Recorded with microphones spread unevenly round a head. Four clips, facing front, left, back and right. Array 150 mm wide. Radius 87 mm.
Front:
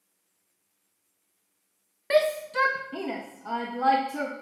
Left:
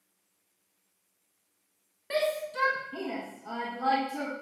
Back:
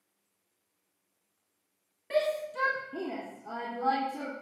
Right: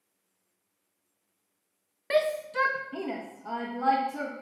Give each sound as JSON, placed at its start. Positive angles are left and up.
{"t": 2.1, "sound": "a shout", "azimuth_deg": -15, "distance_m": 1.0}